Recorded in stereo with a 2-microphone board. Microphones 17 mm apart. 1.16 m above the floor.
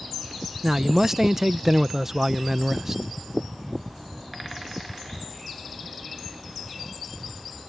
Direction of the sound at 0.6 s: 25° right (ahead or behind).